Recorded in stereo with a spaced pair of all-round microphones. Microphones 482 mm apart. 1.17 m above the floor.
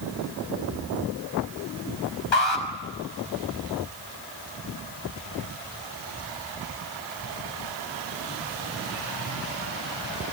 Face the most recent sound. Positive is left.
turn(degrees=65)  # may be behind; listen again after turning